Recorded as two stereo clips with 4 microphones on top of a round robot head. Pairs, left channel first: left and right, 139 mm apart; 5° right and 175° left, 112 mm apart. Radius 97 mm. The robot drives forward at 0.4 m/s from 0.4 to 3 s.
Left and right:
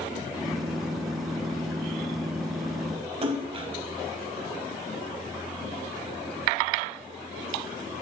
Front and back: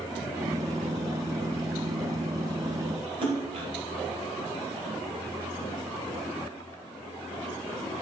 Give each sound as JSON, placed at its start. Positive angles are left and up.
{"t": 3.2, "sound": "a splash", "azimuth_deg": -135, "distance_m": 1.1}